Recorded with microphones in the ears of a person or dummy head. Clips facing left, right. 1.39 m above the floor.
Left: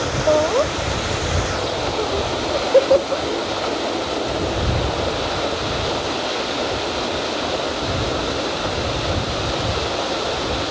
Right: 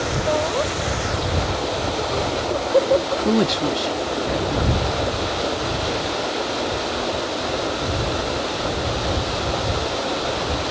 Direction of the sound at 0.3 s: 50° left (ahead or behind).